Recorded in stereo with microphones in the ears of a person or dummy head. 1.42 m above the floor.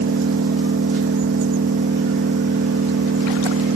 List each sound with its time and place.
0.0 s an engine running: 70° right (ahead or behind), 0.8 m